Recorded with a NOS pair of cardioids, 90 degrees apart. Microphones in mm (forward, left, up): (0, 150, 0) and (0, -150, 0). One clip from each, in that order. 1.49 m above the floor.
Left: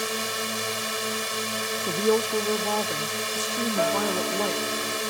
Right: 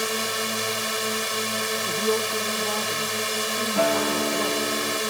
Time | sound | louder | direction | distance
0.0 | a drone | right 2 dB | 20° right | ?
1.9 | a woman speaking | left 3 dB | 25° left | ?
3.8 | a guitar | right 3 dB | 40° right | ?